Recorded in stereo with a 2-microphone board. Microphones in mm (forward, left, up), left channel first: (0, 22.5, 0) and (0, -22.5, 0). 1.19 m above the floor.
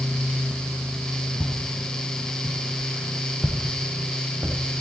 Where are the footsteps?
50° left (ahead or behind), 1.8 m; by 4.8 s 30° right (ahead or behind), 3 m.